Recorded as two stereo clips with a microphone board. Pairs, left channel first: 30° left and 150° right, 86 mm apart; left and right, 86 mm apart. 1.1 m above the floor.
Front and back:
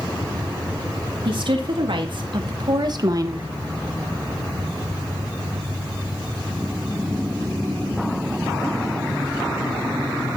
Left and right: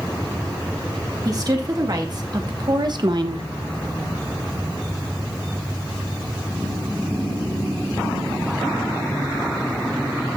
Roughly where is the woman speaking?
Behind right.